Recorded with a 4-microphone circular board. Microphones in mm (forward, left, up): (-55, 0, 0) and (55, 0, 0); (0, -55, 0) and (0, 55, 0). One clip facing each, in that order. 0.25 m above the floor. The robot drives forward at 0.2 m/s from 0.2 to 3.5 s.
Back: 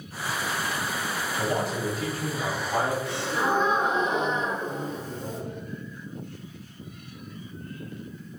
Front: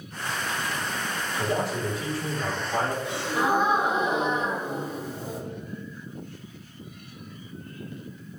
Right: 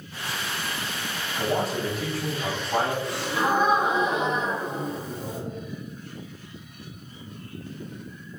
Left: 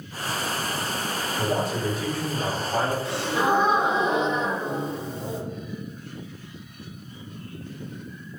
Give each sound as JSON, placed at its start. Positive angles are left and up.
{"t": 1.4, "sound": "a man speaking", "azimuth_deg": -165, "distance_m": 1.8}
{"t": 3.0, "sound": "a gasp", "azimuth_deg": 55, "distance_m": 0.8}